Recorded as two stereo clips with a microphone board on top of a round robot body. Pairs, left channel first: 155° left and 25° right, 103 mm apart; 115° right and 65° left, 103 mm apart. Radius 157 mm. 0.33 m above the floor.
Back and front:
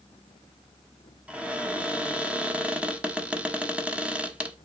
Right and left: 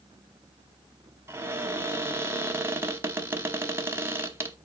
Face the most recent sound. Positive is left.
turn(degrees=40)